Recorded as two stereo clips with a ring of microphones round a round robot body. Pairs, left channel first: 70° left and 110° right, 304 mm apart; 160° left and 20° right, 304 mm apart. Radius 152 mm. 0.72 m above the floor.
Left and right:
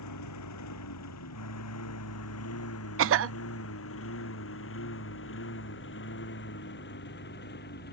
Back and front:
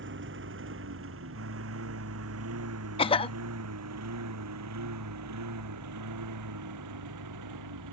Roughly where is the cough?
Behind right.